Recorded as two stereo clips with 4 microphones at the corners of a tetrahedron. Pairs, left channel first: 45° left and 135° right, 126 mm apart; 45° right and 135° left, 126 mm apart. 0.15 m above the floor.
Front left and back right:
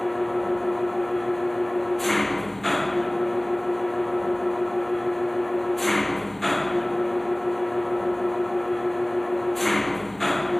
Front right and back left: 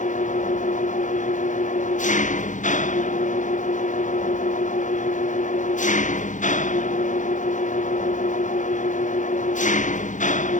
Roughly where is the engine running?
Ahead right.